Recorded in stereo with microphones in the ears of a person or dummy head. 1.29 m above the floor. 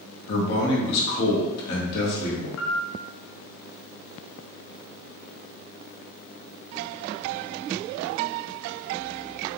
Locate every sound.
0.3 s a man speaking: 60° left (ahead or behind), 1.5 m
2.6 s a piano: 70° left (ahead or behind), 0.7 m